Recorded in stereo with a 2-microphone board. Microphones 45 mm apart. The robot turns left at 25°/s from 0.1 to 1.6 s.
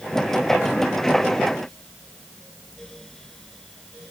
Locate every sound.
Only background noise.